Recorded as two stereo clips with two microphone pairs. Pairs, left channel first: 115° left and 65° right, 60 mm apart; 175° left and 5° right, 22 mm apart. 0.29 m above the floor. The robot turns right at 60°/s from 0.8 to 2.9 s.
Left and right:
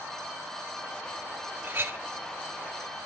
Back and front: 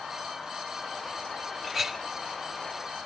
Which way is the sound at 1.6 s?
80° right.